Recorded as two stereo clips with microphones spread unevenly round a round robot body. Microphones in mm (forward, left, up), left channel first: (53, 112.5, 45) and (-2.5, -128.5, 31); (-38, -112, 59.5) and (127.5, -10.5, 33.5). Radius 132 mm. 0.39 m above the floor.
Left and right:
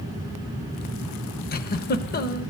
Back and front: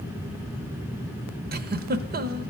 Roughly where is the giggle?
Ahead left.